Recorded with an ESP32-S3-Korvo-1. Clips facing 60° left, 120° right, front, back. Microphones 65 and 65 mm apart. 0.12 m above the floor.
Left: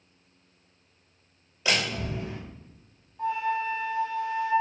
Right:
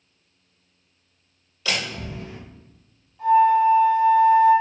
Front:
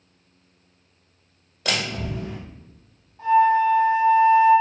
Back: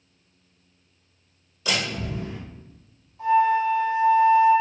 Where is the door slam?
5° right, 1.9 m.